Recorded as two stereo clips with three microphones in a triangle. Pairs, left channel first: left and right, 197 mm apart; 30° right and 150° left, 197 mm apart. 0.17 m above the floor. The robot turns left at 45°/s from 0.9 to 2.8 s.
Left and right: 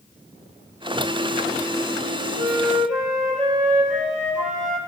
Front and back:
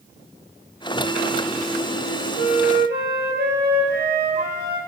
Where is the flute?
165° right, 4 m; by 4.8 s 175° left, 4 m.